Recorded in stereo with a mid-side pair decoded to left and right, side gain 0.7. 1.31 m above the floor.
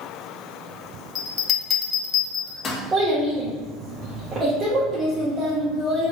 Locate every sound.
1.1 s a bell: 35° left, 1.0 m
2.9 s a child speaking: 30° right, 1.2 m